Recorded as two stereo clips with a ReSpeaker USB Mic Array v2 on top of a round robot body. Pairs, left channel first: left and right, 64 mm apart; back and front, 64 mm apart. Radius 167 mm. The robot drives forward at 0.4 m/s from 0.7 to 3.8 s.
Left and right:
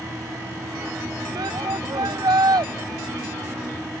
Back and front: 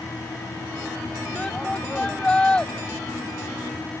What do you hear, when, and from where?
1.4 s a shout: 100° right; by 2.7 s 105° right